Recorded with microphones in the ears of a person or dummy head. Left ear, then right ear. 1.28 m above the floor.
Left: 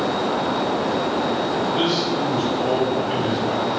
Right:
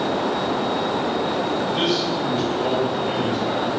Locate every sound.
1.7 s a man speaking: 20° right (ahead or behind), 1.8 m; by 3.7 s 50° right (ahead or behind), 2.5 m